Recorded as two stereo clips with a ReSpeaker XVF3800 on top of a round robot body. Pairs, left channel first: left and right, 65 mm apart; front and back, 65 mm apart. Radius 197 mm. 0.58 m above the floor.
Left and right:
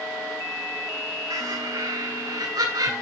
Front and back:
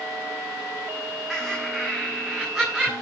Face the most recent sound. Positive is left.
turn(degrees=-90)